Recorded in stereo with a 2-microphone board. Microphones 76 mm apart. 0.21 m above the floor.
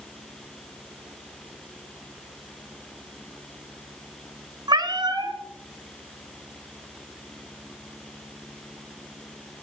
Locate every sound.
4.7 s a cat meowing: 65° right (ahead or behind), 1.2 m